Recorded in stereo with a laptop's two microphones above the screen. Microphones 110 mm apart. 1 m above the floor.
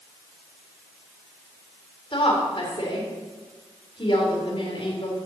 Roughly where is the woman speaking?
Left.